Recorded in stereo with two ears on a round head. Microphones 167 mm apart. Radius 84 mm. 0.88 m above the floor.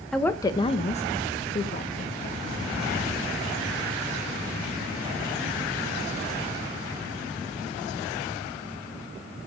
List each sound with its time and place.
0.1 s a woman speaking: 5° left (ahead or behind), 0.6 m; by 2.4 s 45° left (ahead or behind), 1.7 m